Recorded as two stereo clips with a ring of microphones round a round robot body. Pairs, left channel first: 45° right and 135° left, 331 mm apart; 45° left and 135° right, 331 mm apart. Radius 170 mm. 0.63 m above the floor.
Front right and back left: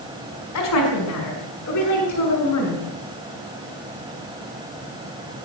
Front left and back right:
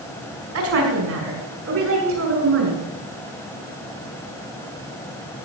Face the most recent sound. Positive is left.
turn(degrees=-85)